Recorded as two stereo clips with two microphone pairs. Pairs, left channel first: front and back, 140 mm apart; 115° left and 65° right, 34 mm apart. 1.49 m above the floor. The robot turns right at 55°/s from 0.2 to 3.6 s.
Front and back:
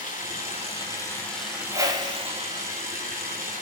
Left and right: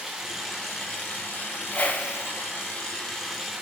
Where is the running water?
20° left, 4 m; by 3.6 s 150° right, 4 m.